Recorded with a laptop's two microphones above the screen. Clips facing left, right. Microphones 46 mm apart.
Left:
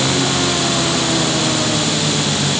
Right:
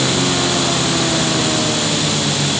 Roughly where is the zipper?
I don't hear a zipper.